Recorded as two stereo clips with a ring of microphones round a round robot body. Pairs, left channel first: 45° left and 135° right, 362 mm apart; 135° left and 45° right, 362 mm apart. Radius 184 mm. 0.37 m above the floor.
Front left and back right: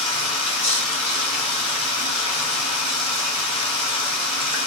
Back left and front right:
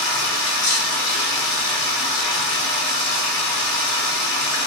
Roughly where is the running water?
Behind left.